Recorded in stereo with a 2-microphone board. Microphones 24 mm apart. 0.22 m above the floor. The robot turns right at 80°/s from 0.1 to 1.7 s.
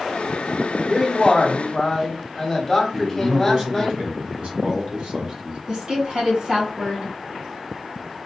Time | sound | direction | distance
0.9 | a man speaking | centre (ahead or behind) | 1.0 m
2.9 | a man speaking | 50° right (ahead or behind) | 1.4 m
5.7 | a woman speaking | 45° right (ahead or behind) | 2.0 m